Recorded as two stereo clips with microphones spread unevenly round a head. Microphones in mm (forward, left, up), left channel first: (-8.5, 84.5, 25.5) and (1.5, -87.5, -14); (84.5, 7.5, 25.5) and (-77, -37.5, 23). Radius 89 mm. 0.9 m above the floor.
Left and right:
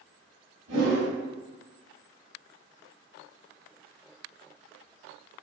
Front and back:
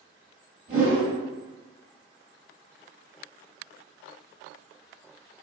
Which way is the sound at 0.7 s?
130° right.